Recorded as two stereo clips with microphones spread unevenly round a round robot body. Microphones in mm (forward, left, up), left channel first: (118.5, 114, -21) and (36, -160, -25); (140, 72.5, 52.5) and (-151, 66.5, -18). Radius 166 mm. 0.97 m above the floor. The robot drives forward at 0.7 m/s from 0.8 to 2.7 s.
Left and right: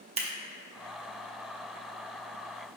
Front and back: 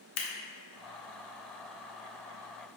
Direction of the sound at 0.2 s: 40° right.